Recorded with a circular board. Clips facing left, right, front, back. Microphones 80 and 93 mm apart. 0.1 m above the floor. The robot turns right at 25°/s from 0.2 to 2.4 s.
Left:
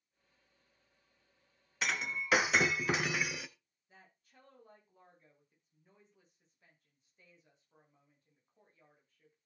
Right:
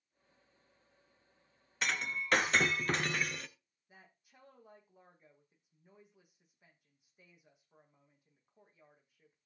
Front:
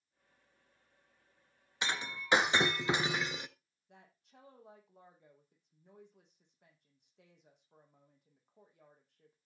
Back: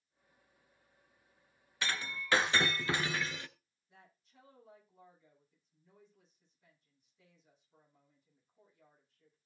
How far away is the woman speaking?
About 5.5 m.